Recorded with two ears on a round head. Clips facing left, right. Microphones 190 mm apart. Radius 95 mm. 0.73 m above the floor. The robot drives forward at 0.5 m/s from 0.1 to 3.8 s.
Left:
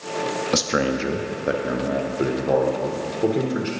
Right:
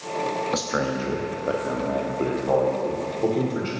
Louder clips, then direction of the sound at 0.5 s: Left 7 dB; 35° left (ahead or behind).